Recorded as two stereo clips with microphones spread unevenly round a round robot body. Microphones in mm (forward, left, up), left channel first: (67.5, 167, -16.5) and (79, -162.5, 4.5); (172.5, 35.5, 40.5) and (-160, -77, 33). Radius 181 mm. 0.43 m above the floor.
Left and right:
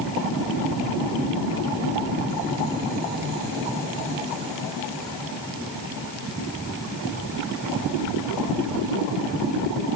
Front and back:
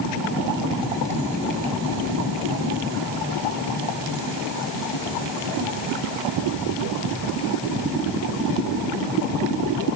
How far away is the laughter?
No laughter in this recording.